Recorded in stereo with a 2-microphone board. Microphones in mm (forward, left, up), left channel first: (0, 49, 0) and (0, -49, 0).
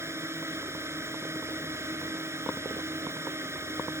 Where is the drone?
25° right (ahead or behind).